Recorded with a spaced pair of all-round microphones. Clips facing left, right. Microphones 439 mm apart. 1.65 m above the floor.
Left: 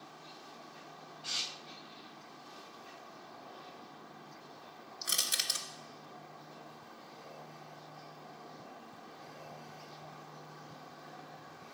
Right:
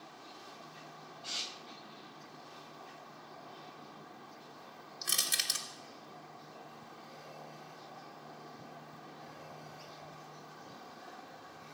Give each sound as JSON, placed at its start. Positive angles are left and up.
{"t": 5.0, "sound": "crushing", "side_deg": -10, "distance_m": 1.1}